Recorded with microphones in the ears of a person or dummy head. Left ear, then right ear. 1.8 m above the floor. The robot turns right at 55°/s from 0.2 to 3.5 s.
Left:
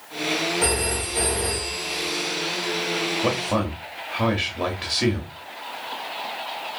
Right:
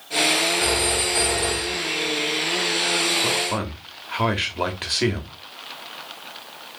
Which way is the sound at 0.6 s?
85° right.